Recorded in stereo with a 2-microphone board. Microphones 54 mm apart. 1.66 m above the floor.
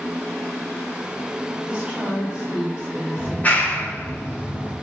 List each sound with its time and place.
1.6 s a woman speaking: 20° right (ahead or behind), 3.5 m
3.2 s a clap: 30° left (ahead or behind), 2.5 m